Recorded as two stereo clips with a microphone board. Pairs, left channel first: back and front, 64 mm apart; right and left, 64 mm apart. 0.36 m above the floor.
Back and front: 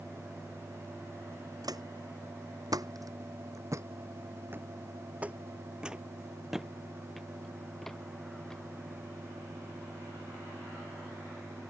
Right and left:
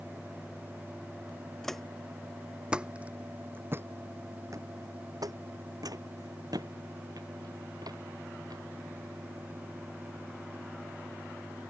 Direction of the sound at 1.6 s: 5° right.